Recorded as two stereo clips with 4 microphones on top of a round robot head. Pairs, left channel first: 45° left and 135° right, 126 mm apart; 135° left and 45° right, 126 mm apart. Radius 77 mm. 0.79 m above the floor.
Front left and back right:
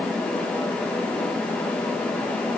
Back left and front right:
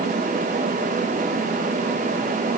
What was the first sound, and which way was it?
Only background noise.